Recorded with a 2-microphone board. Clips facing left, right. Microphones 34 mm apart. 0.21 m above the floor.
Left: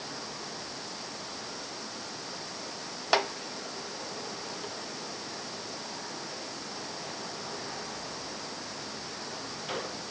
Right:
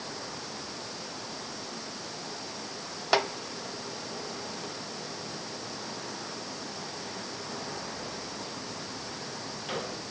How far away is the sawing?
I don't hear sawing.